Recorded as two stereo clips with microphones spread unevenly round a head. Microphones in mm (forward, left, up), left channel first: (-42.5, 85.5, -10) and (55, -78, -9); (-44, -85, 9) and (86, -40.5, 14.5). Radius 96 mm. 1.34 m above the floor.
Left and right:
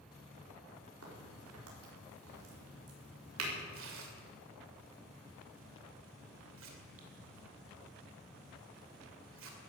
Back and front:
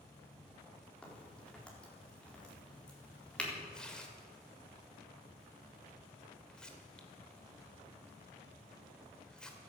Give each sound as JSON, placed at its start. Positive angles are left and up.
{"t": 1.0, "sound": "a crack", "azimuth_deg": -80, "distance_m": 4.5}
{"t": 3.7, "sound": "tearing paper", "azimuth_deg": -75, "distance_m": 2.5}